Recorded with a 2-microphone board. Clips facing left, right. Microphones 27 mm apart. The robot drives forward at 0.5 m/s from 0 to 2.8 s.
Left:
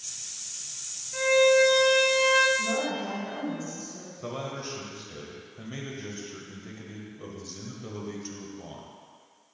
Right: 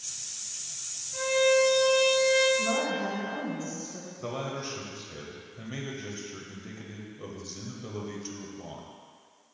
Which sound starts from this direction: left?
A violin, at 1.1 s.